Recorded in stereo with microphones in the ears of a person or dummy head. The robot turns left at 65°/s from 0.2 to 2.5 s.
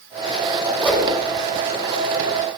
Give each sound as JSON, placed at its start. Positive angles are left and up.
{"t": 0.8, "sound": "a whoosh", "side_deg": 15, "distance_m": 5.0}